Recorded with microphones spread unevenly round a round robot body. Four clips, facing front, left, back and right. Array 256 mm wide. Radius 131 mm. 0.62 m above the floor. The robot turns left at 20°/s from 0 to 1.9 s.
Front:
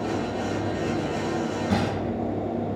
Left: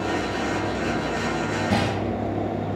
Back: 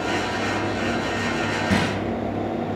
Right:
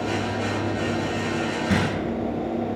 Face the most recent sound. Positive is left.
turn(degrees=-110)